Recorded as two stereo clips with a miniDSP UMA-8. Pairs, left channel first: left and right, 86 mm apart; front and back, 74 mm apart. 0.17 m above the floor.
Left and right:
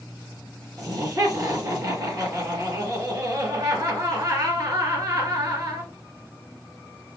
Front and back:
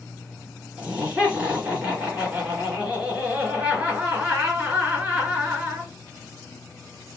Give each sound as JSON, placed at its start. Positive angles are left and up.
{"t": 0.8, "sound": "laughter", "azimuth_deg": -105, "distance_m": 2.5}